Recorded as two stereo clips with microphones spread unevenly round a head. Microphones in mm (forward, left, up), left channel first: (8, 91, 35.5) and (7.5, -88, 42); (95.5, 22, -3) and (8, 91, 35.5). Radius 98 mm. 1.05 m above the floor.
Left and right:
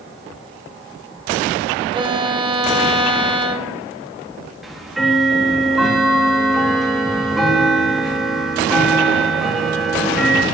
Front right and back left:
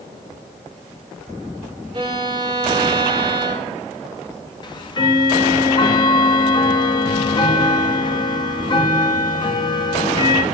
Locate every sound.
1.9 s a violin: 155° right, 0.7 m
4.6 s ticking: straight ahead, 1.1 m